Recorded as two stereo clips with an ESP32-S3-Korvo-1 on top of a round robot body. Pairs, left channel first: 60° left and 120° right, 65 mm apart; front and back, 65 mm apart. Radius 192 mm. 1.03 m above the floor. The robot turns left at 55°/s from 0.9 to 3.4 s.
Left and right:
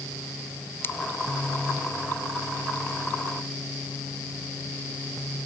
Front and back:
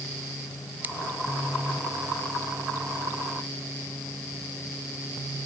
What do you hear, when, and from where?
0.8 s scissors: 115° left